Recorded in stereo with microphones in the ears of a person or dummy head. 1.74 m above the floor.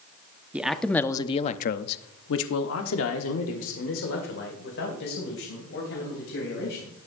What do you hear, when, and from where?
0.5 s a man speaking: 5° right (ahead or behind), 0.8 m; by 7.1 s 60° left (ahead or behind), 3.5 m